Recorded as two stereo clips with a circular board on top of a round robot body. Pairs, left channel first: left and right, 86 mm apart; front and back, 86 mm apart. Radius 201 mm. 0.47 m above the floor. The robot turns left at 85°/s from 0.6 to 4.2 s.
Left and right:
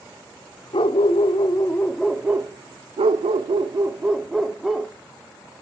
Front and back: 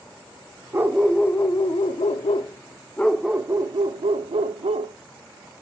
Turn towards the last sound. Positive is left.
turn(degrees=180)